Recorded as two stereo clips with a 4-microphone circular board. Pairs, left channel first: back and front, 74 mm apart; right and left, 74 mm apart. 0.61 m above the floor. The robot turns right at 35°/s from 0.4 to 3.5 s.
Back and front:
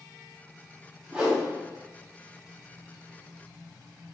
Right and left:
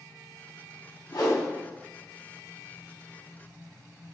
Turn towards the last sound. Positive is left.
turn(degrees=5)